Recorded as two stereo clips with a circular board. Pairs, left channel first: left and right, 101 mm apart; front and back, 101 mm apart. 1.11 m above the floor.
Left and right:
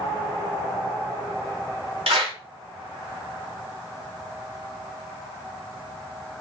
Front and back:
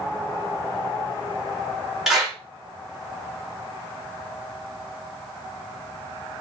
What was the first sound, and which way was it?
A clap, 95° right.